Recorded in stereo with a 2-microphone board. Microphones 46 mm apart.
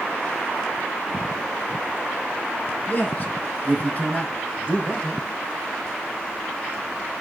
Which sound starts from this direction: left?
A man speaking, at 2.9 s.